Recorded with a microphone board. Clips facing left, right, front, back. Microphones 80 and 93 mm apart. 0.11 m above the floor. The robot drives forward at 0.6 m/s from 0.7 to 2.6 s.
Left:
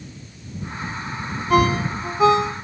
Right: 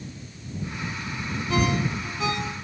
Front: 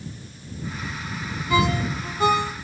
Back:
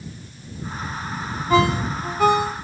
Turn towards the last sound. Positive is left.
turn(degrees=140)